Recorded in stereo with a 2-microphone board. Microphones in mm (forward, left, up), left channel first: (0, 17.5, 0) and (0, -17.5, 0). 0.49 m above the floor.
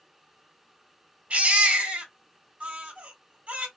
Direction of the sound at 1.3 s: 40° right (ahead or behind).